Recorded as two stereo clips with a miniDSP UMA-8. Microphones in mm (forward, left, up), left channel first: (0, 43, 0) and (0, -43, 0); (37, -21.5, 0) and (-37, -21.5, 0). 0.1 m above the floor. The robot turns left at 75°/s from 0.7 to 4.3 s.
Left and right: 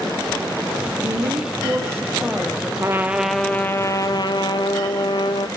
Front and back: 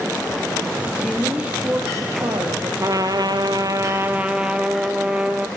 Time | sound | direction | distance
1.0 | a woman speaking | 75° right | 3 m
2.8 | a trumpet | 140° right | 1.4 m